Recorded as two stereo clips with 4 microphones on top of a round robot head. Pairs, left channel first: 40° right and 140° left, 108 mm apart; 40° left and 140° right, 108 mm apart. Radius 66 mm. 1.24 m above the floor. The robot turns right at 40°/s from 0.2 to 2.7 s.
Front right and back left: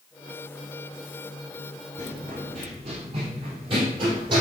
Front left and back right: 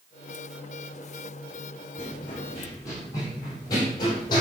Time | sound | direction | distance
2.0 | running footsteps | 80° left | 5 m